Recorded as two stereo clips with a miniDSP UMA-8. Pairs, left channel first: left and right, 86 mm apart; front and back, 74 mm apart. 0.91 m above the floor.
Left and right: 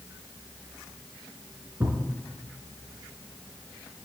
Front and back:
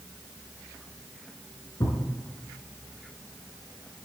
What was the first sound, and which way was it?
A thud, 25° right.